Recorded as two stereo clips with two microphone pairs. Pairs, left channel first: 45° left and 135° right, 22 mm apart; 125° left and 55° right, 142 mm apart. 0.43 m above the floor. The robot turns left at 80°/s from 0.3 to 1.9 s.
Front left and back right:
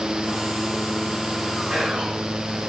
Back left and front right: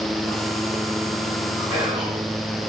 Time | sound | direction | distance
1.7 | whispering | 120° right | 2.5 m